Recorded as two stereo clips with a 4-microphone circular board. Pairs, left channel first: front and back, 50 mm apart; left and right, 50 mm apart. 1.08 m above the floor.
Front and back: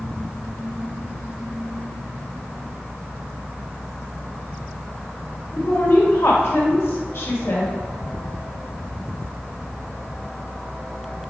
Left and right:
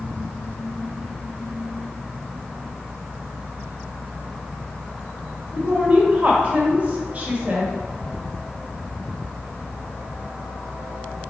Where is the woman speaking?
30° right, 1.2 m.